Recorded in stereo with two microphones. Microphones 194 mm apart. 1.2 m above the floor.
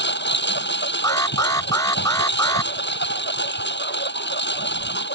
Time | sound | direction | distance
0.0 | a lawn mower | 65° left (ahead or behind) | ?
1.0 | an alarm | 15° left (ahead or behind) | ?